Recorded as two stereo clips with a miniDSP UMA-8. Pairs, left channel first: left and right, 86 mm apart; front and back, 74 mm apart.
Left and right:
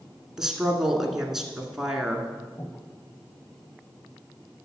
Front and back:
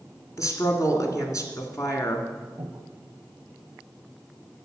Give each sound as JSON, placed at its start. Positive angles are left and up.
{"t": 0.4, "sound": "a woman speaking", "azimuth_deg": -5, "distance_m": 1.8}
{"t": 2.6, "sound": "breathing", "azimuth_deg": 140, "distance_m": 2.0}